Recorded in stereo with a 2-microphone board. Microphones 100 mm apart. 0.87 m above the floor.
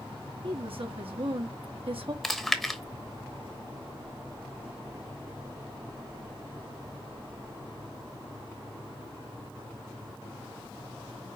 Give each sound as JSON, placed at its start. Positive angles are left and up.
{"t": 0.4, "sound": "a woman speaking", "side_deg": -65, "distance_m": 1.6}
{"t": 2.2, "sound": "chewing", "side_deg": 0, "distance_m": 1.1}